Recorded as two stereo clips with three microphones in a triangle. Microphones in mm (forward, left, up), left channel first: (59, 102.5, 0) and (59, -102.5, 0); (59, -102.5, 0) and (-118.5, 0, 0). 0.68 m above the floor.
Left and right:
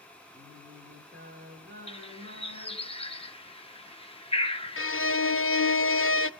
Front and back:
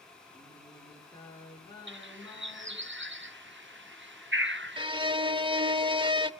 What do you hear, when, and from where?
0.3 s singing: 100° right, 9 m
1.9 s a bird: 150° left, 0.8 m
4.8 s a violin: 85° left, 0.6 m